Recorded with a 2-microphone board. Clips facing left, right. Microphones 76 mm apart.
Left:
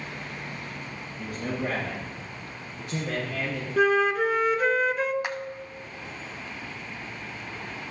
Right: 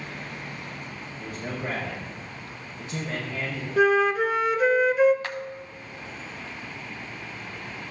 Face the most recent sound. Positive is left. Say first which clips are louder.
# left 2 dB
turn(degrees=15)  # may be behind; listen again after turning